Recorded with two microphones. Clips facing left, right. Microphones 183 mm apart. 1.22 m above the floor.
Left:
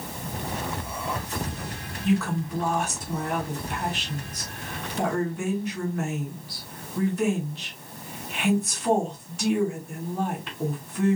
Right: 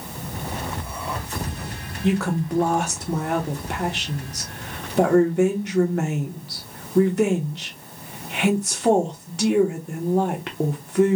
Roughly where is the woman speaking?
Right.